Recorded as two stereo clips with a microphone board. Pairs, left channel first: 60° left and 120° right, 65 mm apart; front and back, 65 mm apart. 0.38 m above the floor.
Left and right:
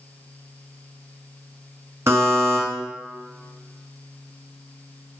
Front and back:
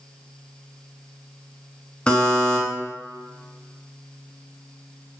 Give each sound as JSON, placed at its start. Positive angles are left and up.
{"t": 2.1, "sound": "a buzzer", "azimuth_deg": -75, "distance_m": 0.6}